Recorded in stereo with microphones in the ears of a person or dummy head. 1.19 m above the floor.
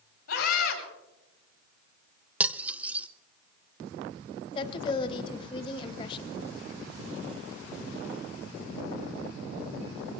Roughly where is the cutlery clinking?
Centre.